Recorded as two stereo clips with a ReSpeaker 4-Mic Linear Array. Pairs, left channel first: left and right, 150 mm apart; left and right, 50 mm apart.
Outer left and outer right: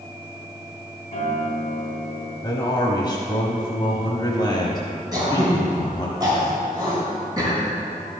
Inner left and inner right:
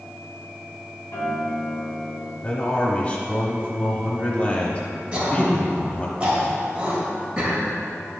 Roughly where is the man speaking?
Left.